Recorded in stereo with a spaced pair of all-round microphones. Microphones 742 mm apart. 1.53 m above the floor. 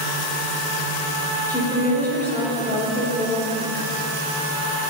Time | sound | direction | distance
1.5 | a woman speaking | 5° left (ahead or behind) | 1.8 m